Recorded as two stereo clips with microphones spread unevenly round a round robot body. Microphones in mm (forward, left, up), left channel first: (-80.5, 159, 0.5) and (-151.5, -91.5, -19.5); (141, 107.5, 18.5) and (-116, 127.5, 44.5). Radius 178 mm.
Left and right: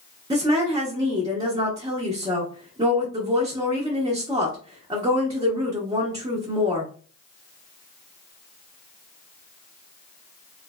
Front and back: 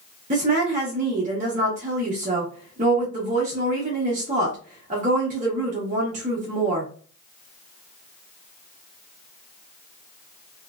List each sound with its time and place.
0.3 s a woman speaking: 150° right, 0.7 m